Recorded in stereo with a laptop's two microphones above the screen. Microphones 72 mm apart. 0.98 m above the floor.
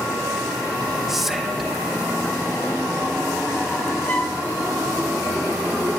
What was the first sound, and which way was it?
Whispering, 5° right (ahead or behind).